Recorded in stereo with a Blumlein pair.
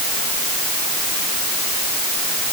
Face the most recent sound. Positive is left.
No sound to turn to.